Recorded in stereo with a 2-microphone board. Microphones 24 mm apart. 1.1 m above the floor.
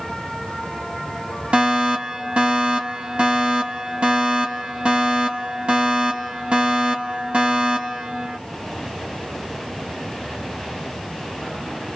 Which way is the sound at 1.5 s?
55° right (ahead or behind).